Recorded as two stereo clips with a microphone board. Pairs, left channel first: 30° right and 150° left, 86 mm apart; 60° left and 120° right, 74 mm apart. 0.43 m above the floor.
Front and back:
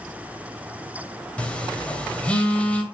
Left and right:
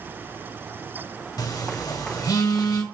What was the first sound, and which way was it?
A phone buzzing, 45° left.